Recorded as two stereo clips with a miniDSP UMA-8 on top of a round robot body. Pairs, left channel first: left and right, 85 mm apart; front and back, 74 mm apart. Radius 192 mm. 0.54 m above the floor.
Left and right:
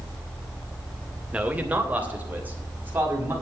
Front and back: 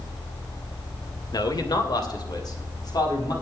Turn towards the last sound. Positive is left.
turn(degrees=-25)